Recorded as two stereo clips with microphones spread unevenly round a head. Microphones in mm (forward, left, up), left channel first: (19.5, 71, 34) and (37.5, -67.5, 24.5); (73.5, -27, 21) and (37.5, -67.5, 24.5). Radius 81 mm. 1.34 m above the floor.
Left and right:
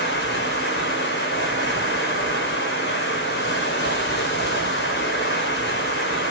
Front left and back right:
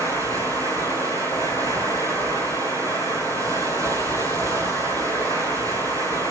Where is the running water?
115° left, 3.5 m.